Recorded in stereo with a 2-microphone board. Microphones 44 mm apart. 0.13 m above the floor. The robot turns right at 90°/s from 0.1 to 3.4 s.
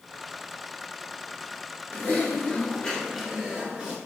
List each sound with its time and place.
1.9 s typing on a keyboard: 70° left, 1.3 m; by 4.0 s 155° right, 1.3 m